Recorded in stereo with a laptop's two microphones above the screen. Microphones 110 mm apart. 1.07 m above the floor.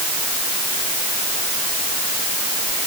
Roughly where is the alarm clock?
I don't hear an alarm clock.